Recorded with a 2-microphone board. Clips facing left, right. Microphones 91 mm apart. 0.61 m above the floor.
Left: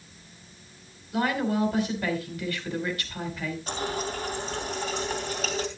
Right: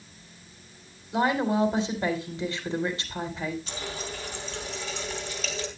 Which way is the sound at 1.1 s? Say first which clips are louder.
Right 2 dB; 25° right (ahead or behind).